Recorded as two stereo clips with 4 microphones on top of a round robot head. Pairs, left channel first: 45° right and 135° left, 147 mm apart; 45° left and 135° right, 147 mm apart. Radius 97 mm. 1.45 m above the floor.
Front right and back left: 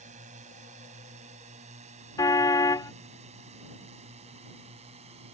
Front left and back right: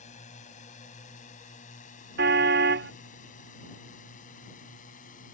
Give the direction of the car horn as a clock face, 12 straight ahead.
4 o'clock.